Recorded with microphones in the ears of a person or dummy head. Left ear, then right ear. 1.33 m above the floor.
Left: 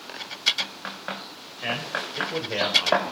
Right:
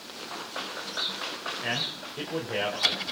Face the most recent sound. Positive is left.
turn(degrees=5)  # may be behind; listen again after turning